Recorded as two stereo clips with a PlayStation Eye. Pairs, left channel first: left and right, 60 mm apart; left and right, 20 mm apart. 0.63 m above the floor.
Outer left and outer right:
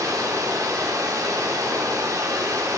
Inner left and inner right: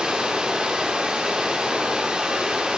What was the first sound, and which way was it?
Running water, 70° right (ahead or behind).